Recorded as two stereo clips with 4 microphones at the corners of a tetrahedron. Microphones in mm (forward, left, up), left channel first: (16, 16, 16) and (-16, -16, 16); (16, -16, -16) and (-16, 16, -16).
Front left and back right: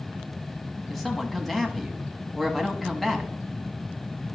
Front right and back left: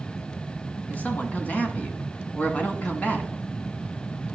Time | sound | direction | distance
0.9 | a man speaking | 35° right | 1.1 m